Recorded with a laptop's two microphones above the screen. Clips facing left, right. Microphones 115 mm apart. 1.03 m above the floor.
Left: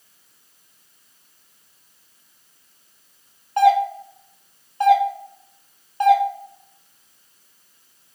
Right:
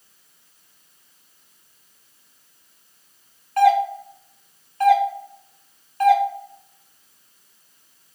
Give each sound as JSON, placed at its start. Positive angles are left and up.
{"t": 3.6, "sound": "a doorbell", "side_deg": 20, "distance_m": 0.7}